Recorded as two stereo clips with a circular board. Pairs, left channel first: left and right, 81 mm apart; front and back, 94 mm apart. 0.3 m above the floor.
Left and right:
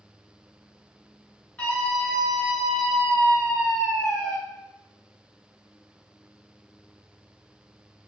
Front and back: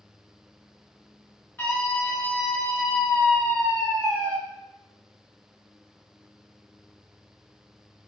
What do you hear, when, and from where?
1.6 s a scream: 45° left, 1.2 m; by 4.4 s 165° left, 1.8 m